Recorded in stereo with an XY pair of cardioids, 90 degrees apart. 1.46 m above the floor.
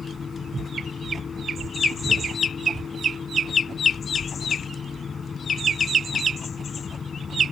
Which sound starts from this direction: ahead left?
A fan, at 0.0 s.